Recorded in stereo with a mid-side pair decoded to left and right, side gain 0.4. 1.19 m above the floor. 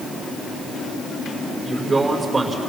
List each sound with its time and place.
1.6 s a man speaking: 20° right, 4.5 m